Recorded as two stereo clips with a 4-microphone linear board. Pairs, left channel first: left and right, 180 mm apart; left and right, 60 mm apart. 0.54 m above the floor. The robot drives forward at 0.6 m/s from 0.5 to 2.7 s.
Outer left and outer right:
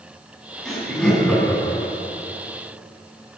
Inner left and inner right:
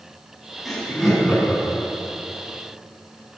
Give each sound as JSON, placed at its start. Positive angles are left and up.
{"t": 0.7, "sound": "laughter", "side_deg": 0, "distance_m": 4.0}